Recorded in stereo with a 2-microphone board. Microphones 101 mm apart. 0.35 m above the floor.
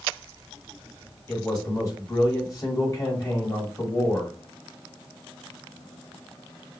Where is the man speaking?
35° left (ahead or behind), 1.7 m.